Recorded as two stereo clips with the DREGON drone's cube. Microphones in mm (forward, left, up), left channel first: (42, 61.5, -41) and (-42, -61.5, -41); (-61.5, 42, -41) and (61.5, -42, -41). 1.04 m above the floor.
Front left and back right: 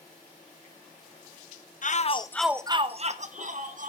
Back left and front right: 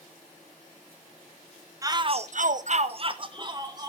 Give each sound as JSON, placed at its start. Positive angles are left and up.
{"t": 1.8, "sound": "a shout", "azimuth_deg": 30, "distance_m": 0.7}